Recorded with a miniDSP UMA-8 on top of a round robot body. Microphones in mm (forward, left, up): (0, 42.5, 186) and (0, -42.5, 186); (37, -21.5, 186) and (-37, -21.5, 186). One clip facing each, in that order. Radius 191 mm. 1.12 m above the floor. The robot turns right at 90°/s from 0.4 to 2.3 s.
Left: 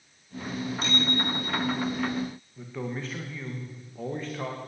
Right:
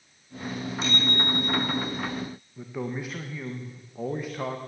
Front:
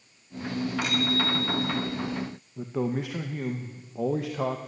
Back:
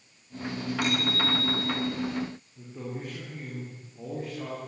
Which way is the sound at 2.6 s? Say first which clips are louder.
Right 2 dB, front 10 dB; 10° right.